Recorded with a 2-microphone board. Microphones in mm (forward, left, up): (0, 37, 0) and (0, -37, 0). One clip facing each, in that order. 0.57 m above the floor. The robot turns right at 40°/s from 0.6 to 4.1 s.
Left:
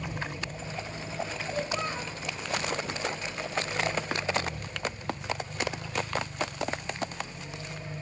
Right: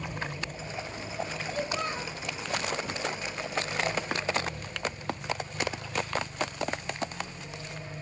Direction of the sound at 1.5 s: 10° left (ahead or behind).